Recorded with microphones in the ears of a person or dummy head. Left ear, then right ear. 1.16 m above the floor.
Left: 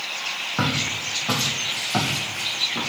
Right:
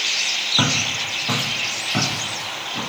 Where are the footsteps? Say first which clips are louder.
Right 4 dB; centre (ahead or behind), 2.5 m; by 2.9 s 20° left (ahead or behind), 3.5 m.